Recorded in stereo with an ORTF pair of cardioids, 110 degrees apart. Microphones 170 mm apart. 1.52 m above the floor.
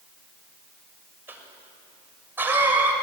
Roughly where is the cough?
Ahead.